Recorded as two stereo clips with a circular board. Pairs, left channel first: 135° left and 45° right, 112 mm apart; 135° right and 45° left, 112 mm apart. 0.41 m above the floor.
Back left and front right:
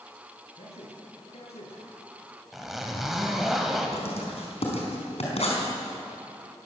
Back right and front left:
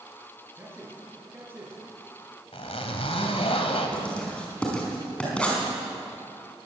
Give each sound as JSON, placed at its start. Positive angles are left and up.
{"t": 0.5, "sound": "a man speaking", "azimuth_deg": 115, "distance_m": 7.0}
{"t": 2.5, "sound": "a zipper", "azimuth_deg": -135, "distance_m": 2.5}
{"t": 3.9, "sound": "writing", "azimuth_deg": 145, "distance_m": 4.5}